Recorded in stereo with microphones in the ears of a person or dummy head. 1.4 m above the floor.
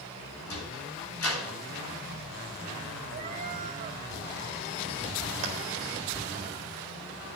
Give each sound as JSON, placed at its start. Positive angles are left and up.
{"t": 0.5, "sound": "a sliding door", "side_deg": 80, "distance_m": 7.0}
{"t": 3.1, "sound": "a cat meowing", "side_deg": -30, "distance_m": 0.8}
{"t": 5.4, "sound": "a clap", "side_deg": -40, "distance_m": 1.9}